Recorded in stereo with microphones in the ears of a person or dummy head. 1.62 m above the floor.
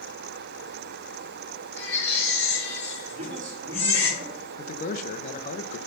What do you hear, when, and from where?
1.8 s a baby crying: 15° left (ahead or behind), 5 m
3.1 s a man speaking: 40° right (ahead or behind), 2.5 m
4.6 s a man speaking: 45° left (ahead or behind), 1.2 m